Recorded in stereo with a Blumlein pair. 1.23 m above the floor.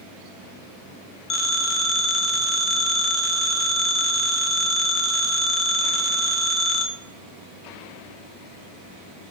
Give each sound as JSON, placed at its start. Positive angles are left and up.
{"t": 1.3, "sound": "a phone ringing", "azimuth_deg": 25, "distance_m": 0.5}